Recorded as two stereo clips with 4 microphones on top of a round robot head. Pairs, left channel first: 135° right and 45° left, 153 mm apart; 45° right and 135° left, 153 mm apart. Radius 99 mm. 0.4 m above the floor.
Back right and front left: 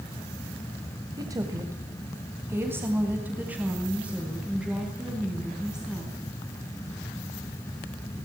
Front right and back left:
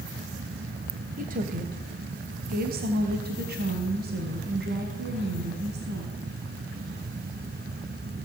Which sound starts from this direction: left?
A woman speaking, at 1.2 s.